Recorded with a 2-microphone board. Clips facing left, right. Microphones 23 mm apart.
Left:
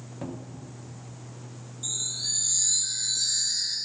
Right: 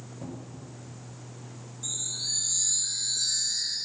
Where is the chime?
30° left (ahead or behind), 1.5 m.